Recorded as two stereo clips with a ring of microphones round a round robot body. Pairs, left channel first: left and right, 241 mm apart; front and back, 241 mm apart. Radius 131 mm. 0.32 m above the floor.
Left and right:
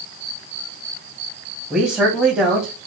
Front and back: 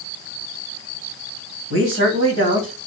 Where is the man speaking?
175° right, 2.5 m.